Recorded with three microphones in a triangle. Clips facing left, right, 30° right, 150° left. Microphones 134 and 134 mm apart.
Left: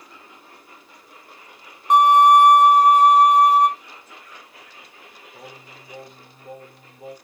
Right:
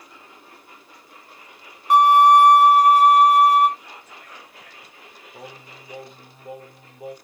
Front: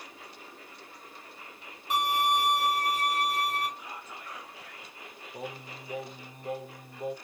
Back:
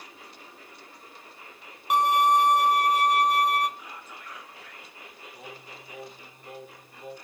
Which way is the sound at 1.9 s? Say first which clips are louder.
Even, back 6 dB; 160° left.